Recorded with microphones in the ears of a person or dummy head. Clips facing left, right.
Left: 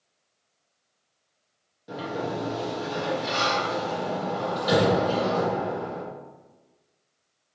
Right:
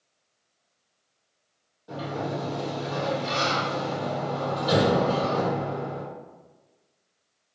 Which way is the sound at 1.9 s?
15° left (ahead or behind).